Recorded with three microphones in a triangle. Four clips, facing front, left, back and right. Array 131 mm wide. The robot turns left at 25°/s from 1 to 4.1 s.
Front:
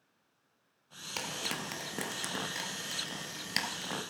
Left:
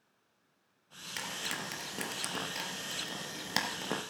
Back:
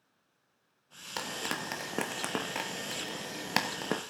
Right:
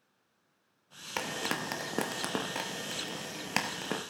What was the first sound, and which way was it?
Frying, 105° right.